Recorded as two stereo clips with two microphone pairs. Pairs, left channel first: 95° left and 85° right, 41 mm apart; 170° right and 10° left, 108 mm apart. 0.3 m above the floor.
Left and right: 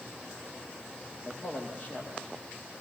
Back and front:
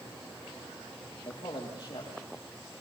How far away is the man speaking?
About 9 m.